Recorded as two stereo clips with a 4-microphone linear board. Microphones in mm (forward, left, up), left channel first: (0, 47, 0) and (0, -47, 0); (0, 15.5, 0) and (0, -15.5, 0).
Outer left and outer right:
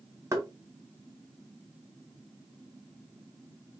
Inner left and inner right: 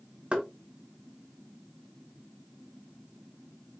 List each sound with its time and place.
0.3 s knocking: 35° right (ahead or behind), 1.6 m